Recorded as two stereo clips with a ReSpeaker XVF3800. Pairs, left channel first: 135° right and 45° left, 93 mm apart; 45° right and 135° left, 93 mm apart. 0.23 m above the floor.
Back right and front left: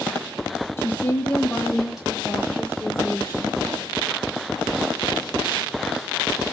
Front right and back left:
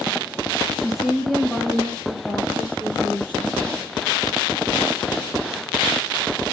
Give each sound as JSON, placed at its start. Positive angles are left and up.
{"t": 0.8, "sound": "a woman speaking", "azimuth_deg": -145, "distance_m": 1.7}